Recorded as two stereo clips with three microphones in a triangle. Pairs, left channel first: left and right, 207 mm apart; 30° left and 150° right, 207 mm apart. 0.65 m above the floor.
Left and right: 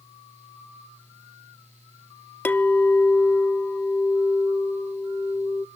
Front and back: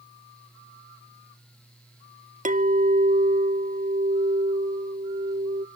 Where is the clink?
170° left, 0.6 m.